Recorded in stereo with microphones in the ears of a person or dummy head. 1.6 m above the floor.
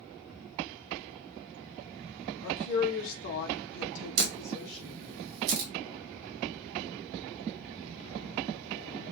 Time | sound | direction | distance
2.4 | a woman speaking | 35° left (ahead or behind) | 1.3 m
4.2 | a camera shutter | 55° right (ahead or behind) | 0.9 m